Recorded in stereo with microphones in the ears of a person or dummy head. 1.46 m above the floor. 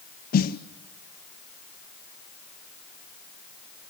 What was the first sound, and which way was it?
A snare drum, 50° left (ahead or behind).